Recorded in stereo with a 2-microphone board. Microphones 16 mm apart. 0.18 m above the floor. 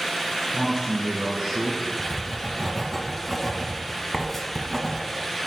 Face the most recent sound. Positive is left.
turn(degrees=10)  # may be behind; listen again after turning